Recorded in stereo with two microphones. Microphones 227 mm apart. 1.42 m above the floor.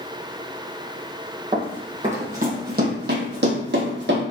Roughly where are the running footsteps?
Right.